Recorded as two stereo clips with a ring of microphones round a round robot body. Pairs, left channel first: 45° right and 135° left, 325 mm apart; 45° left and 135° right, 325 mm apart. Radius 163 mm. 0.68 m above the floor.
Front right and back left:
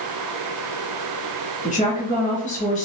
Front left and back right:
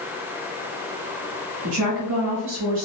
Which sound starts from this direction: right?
A woman speaking, at 1.6 s.